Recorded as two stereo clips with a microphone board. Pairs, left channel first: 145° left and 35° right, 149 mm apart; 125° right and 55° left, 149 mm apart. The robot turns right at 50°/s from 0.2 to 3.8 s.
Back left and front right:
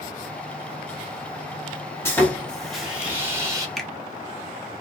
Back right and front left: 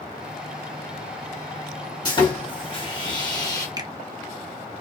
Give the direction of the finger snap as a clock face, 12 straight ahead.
10 o'clock.